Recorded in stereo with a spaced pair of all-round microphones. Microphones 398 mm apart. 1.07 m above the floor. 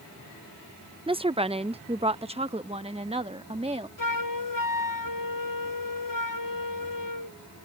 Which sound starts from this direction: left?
A flute, at 4.0 s.